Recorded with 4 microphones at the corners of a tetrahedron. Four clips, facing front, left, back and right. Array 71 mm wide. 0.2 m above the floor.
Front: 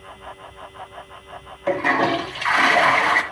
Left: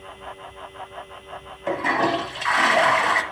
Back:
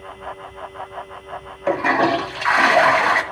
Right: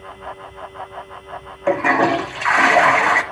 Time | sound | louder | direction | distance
1.7 | a toilet flushing | right 6 dB, back 2 dB | 115° right | 1.4 m